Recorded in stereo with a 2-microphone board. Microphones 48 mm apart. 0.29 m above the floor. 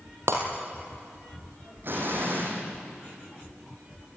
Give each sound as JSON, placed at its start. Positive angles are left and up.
{"t": 0.3, "sound": "breaking glass", "side_deg": -65, "distance_m": 3.5}
{"t": 1.8, "sound": "an explosion", "side_deg": -45, "distance_m": 4.0}